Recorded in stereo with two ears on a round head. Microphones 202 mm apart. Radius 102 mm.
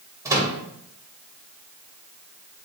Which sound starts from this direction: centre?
A microwave, at 0.2 s.